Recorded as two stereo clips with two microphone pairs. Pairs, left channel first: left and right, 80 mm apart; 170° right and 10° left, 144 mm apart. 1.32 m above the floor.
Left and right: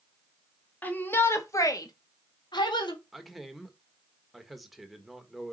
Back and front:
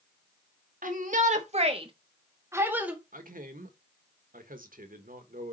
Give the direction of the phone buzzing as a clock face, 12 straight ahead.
I don't hear a phone buzzing.